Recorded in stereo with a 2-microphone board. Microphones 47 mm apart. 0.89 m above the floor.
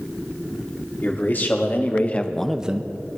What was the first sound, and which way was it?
A man speaking, 50° left (ahead or behind).